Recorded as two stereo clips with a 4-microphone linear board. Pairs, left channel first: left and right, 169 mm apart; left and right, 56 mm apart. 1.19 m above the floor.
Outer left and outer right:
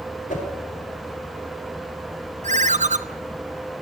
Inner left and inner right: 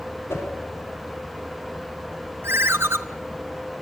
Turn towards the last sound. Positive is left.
turn(degrees=-45)  # may be behind; listen again after turning